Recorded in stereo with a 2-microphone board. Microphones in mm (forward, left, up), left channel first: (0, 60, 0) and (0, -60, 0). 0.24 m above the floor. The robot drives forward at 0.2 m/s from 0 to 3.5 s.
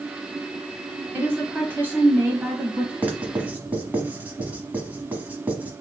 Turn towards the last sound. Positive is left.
turn(degrees=-15)  # may be behind; listen again after turning